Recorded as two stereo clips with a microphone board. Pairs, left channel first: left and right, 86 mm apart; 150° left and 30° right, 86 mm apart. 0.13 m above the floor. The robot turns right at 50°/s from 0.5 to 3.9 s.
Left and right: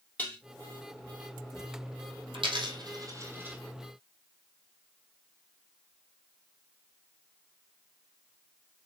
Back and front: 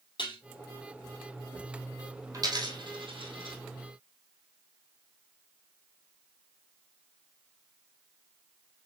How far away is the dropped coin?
About 1.7 m.